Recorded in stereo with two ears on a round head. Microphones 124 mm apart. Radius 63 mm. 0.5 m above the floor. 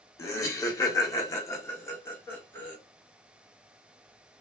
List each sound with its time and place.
0.2 s laughter: 20° left (ahead or behind), 1.1 m; by 2.8 s 10° left (ahead or behind), 1.2 m